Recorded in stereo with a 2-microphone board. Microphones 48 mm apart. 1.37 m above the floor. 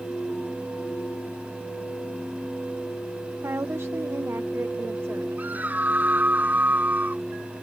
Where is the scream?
40° right (ahead or behind).